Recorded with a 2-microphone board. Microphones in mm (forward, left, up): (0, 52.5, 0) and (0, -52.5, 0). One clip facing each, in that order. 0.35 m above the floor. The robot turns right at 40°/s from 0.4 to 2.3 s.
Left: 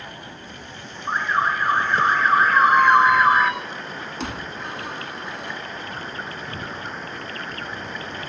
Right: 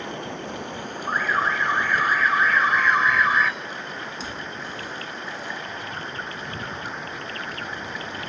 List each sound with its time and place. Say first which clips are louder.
0.0 s running water: right 7 dB; 75° right; by 8.3 s straight ahead
1.1 s an alarm: left 2 dB; 20° left; by 3.5 s 70° left
2.5 s a squeak: left 6 dB; 70° left (ahead or behind)